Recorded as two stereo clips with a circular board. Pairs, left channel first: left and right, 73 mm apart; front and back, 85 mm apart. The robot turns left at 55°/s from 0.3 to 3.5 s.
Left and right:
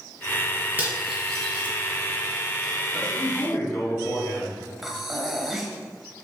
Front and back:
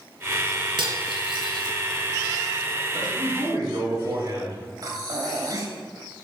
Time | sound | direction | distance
0.8 | cutlery clinking | 160° right | 2 m
2.9 | a man speaking | 170° left | 3 m
4.8 | breathing | 175° right | 1.4 m